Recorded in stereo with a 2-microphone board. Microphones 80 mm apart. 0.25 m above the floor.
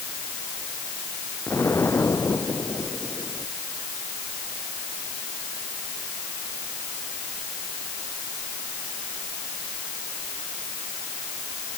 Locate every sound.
1.5 s an explosion: 30° left (ahead or behind)